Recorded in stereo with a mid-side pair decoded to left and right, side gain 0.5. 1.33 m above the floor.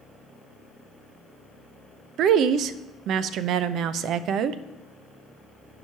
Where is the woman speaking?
70° right, 0.6 m.